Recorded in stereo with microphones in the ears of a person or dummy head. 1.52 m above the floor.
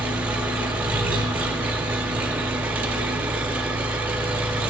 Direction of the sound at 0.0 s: 10° right (ahead or behind).